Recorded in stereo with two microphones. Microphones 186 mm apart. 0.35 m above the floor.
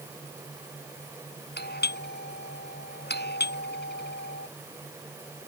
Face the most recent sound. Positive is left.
turn(degrees=65)  # may be behind; listen again after turning